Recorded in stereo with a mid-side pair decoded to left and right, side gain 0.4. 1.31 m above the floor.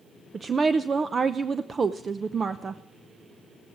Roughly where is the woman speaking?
Ahead right.